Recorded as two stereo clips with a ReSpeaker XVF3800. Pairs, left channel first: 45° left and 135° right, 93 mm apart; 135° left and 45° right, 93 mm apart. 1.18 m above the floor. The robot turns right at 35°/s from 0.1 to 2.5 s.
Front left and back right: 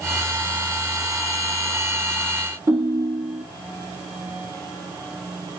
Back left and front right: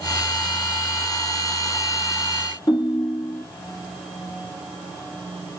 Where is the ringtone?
175° left, 1.1 m.